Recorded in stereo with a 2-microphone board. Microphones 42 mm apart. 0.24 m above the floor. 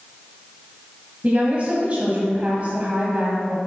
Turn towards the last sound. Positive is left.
turn(degrees=-35)  # may be behind; listen again after turning